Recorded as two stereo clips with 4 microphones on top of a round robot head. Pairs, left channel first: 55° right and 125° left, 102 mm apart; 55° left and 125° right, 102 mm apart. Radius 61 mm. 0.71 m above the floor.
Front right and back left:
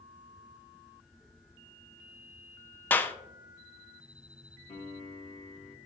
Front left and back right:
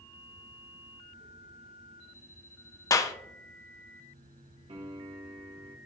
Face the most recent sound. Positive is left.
turn(degrees=-85)